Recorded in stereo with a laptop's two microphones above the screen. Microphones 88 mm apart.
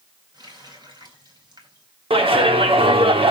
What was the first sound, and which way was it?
A running tap, 50° right (ahead or behind).